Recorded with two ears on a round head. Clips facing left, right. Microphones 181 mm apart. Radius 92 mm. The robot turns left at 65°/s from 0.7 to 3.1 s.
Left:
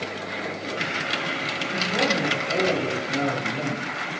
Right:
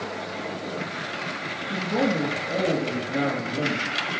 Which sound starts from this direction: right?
A man speaking, at 1.7 s.